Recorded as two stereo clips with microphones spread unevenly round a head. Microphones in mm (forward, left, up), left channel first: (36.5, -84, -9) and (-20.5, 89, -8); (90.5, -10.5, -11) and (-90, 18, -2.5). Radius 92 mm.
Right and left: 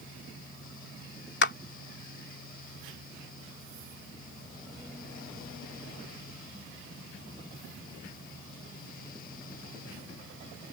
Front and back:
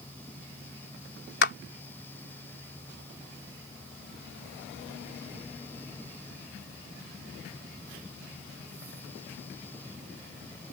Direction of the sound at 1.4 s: 40° right.